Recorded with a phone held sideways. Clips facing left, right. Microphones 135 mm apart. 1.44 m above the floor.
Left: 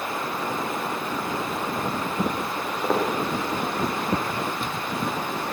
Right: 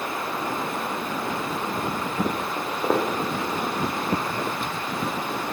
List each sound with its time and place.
2.6 s footsteps: 15° right (ahead or behind), 3.5 m